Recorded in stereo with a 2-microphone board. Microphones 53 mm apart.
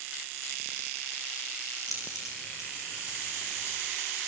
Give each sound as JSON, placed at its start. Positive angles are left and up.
{"t": 1.9, "sound": "keys jangling", "side_deg": 80, "distance_m": 5.5}